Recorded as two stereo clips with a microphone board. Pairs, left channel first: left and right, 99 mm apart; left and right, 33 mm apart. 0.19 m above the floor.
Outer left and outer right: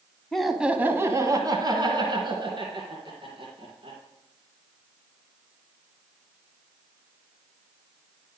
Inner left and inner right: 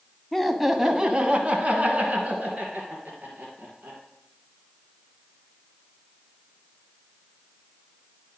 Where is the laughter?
5° left (ahead or behind), 1.1 m; by 4.0 s 55° right (ahead or behind), 3.5 m.